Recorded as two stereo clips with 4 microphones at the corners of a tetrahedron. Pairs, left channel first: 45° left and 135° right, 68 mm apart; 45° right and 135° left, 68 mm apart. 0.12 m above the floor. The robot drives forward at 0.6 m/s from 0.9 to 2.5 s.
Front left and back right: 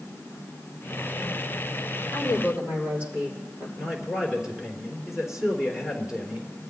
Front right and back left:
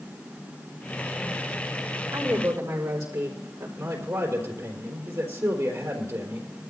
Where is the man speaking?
145° left, 3.5 m.